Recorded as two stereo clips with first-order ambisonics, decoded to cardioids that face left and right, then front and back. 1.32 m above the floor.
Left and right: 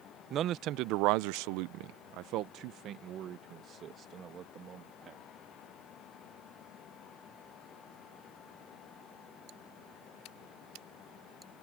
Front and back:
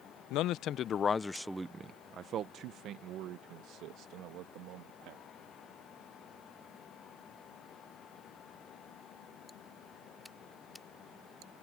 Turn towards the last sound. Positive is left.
turn(degrees=-150)